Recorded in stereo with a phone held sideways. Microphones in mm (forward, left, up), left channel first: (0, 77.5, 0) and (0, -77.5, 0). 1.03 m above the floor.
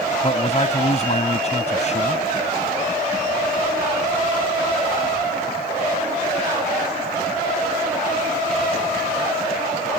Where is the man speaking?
45° left (ahead or behind).